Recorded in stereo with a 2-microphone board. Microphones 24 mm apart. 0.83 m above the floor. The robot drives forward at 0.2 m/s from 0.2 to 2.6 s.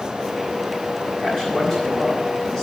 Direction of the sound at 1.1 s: 40° left (ahead or behind).